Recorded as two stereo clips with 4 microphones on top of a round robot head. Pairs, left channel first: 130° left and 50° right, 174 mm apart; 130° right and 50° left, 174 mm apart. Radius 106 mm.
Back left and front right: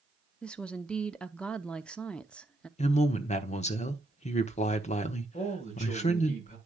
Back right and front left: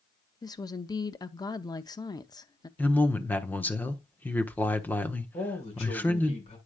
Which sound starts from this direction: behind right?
A woman speaking, at 0.4 s.